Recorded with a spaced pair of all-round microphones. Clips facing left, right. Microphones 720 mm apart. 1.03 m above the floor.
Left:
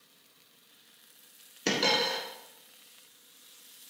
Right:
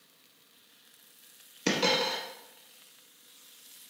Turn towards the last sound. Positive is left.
turn(degrees=-15)  # may be behind; listen again after turning